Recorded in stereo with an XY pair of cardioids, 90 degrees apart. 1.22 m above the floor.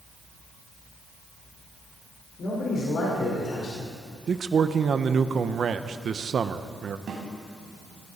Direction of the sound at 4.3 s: 55° right.